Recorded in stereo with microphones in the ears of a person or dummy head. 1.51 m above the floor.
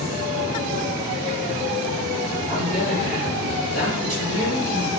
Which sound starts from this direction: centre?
A man speaking, at 2.5 s.